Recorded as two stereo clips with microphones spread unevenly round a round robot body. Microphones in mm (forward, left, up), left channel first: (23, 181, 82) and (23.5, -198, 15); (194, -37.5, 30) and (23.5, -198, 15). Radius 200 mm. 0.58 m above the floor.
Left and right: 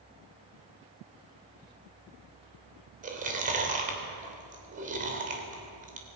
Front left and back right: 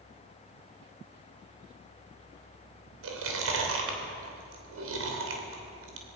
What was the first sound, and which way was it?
Chewing, 155° right.